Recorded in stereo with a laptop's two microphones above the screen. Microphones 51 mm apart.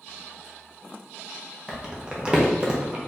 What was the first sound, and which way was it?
Crumpling, 20° right (ahead or behind).